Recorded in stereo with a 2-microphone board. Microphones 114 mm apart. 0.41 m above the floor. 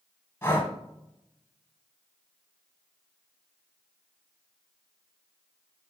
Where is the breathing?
20° left (ahead or behind), 0.7 m.